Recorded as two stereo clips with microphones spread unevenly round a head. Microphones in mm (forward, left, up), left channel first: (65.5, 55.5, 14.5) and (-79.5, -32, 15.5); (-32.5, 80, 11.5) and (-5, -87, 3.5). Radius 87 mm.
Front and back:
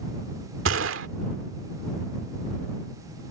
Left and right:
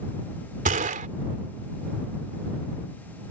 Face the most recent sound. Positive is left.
turn(degrees=-125)